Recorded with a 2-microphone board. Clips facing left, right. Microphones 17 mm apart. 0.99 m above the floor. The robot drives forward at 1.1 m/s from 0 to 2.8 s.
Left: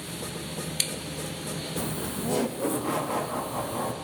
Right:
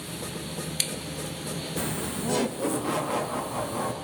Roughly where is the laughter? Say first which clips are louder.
Right 2 dB; right.